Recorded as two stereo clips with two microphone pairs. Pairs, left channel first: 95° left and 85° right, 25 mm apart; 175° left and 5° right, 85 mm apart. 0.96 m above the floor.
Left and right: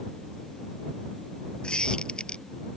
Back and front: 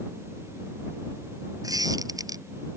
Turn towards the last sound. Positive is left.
turn(degrees=40)